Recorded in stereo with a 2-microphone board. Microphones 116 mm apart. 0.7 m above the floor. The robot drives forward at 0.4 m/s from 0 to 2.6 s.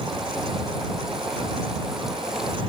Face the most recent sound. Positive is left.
No sound to turn to.